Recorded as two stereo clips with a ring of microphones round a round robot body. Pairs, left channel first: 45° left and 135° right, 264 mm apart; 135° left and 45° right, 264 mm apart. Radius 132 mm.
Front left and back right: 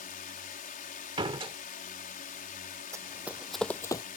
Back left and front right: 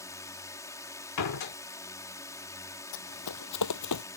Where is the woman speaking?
I don't hear a woman speaking.